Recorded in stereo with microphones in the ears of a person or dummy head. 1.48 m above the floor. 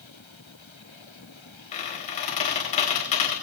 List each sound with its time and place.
1.7 s a squeak: 30° left (ahead or behind), 3 m